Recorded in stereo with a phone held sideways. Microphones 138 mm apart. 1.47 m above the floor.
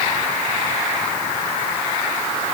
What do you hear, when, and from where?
Only background noise.